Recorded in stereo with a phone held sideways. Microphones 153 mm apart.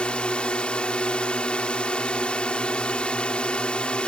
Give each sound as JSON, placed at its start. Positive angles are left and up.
{"t": 0.0, "sound": "a drone", "side_deg": 5}